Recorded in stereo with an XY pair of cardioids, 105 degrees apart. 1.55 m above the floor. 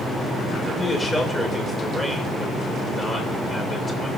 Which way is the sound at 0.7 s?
15° left.